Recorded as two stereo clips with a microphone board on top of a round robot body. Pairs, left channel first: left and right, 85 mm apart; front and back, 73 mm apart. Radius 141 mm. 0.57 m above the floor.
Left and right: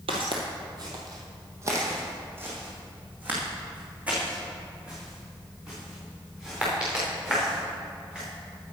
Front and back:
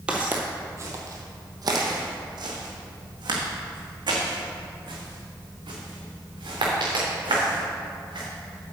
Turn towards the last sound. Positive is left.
turn(degrees=-170)